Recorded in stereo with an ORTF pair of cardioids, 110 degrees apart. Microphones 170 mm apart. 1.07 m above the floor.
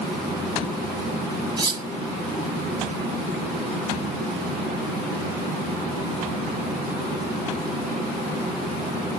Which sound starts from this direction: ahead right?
Cutlery clinking, at 1.6 s.